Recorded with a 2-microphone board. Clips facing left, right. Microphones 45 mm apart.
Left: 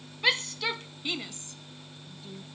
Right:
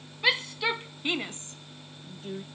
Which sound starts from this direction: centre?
A shout, at 0.2 s.